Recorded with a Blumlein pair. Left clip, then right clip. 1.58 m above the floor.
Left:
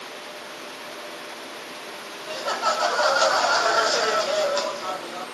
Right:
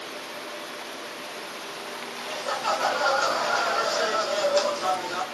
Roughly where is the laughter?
Ahead left.